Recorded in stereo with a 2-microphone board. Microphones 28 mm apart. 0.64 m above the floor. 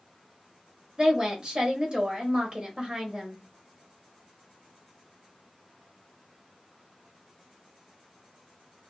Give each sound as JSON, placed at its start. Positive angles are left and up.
{"t": 1.0, "sound": "a woman speaking", "side_deg": -30, "distance_m": 1.0}